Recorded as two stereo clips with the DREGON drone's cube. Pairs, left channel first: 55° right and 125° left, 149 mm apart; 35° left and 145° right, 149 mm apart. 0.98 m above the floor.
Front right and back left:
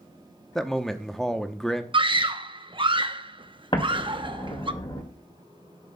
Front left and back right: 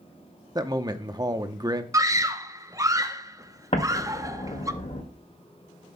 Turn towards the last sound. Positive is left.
turn(degrees=-5)